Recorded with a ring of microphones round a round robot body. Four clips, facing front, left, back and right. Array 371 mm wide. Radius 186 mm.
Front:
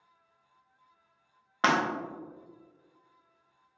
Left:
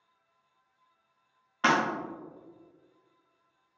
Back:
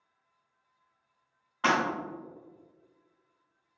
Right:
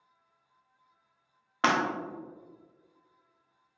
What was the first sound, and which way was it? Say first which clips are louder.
Breaking glass: left 1 dB, front 1 dB; 40° right.